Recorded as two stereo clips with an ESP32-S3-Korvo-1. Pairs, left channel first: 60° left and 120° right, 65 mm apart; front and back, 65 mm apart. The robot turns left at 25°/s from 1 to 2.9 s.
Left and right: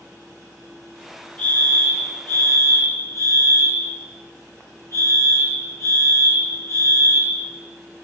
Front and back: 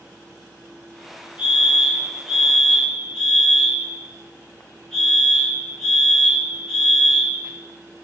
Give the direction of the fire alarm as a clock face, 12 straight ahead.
8 o'clock.